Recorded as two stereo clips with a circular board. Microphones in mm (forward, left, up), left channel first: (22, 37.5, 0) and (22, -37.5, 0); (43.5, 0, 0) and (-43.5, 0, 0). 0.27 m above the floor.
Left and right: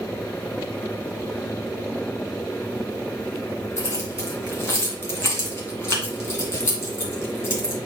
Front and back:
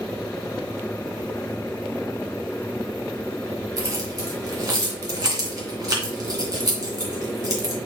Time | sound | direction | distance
3.8 | keys jangling | 140° left | 2 m